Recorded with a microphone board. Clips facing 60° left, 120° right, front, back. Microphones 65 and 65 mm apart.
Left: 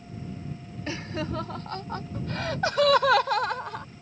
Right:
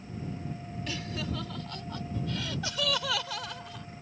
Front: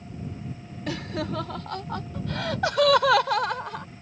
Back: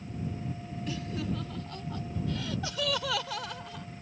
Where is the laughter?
5° left; by 3.9 s 30° left.